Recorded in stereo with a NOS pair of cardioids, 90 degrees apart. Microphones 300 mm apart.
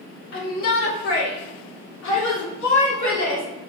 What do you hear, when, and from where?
0.3 s a shout: 45° left, 3 m; by 3.4 s 75° left, 4 m